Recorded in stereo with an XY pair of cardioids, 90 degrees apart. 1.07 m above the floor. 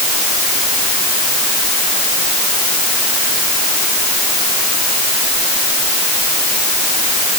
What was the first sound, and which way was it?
Only background noise.